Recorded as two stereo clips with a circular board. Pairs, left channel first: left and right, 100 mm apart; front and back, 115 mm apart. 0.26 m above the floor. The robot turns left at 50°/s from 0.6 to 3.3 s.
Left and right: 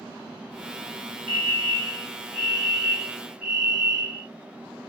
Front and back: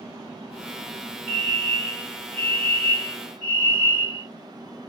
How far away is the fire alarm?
About 1.9 m.